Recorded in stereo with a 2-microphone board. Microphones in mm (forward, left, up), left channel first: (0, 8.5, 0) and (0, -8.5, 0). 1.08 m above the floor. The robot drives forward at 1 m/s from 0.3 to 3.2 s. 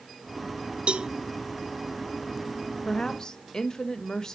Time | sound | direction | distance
0.9 | a cowbell | 85° right | 0.6 m
2.9 | a woman speaking | 50° left (ahead or behind) | 0.9 m